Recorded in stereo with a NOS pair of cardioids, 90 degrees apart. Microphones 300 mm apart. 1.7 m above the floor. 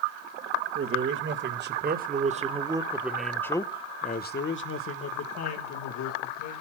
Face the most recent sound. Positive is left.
turn(degrees=70)